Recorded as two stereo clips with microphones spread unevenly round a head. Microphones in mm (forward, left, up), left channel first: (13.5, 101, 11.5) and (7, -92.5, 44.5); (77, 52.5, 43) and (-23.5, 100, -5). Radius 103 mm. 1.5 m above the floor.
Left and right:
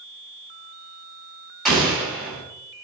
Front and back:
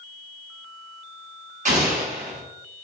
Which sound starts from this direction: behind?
An explosion, at 1.6 s.